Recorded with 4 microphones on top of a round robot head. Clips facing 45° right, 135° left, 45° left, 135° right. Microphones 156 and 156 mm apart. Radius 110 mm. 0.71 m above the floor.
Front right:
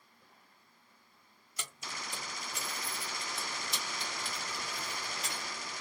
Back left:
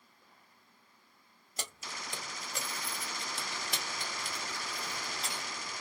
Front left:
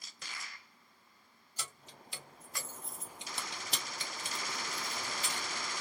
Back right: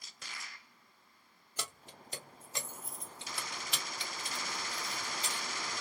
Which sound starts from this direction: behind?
Keys jangling, at 1.6 s.